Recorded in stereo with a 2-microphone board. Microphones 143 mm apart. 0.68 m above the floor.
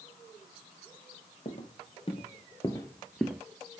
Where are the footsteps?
50° left (ahead or behind), 1.4 m; by 3.4 s 10° right (ahead or behind), 0.6 m.